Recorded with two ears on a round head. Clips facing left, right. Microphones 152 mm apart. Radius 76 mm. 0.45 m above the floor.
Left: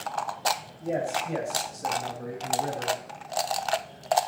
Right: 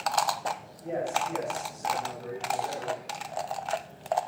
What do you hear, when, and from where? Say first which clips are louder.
0.8 s a man speaking: left 1 dB; 40° left (ahead or behind), 2.5 m; by 3.0 s 60° left (ahead or behind), 4 m